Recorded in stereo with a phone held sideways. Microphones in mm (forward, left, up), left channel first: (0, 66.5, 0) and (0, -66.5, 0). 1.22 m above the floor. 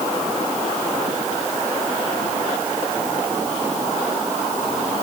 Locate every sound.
Only background noise.